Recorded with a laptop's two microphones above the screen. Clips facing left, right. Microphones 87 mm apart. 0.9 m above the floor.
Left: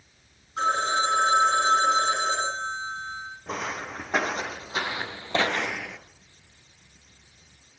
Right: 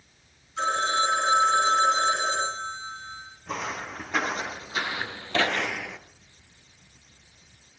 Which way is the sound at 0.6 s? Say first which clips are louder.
Left 1 dB; 40° left (ahead or behind).